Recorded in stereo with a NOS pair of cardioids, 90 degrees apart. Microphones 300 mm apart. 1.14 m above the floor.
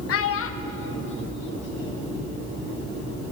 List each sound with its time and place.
0.1 s a child speaking: 55° left, 0.7 m; by 2.1 s 35° left, 2.5 m